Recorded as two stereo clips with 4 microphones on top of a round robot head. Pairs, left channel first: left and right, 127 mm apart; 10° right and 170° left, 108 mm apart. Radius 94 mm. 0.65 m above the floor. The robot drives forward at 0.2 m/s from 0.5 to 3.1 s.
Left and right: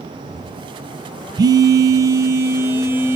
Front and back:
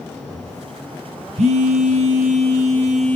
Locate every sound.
1.4 s a phone buzzing: 150° right, 0.6 m; by 3.2 s 160° right, 0.9 m